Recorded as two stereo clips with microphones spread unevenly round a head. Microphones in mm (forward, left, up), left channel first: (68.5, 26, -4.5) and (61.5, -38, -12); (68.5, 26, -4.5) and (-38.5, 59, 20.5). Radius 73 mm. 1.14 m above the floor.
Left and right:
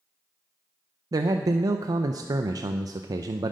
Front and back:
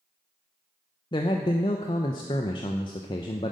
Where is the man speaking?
75° right, 0.5 m.